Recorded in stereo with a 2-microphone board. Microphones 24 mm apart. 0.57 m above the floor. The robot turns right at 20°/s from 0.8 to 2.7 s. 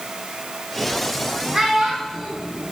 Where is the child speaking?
15° right (ahead or behind), 3.5 m; by 2.3 s centre (ahead or behind), 3.5 m.